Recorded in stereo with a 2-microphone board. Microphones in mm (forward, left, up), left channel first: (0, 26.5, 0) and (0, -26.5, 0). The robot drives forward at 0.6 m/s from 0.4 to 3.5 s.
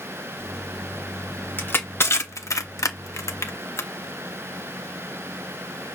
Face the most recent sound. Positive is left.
turn(degrees=60)  # may be behind; listen again after turning